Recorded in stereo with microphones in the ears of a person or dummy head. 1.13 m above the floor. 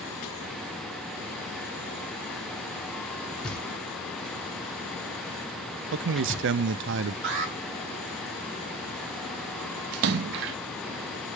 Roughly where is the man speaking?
Right.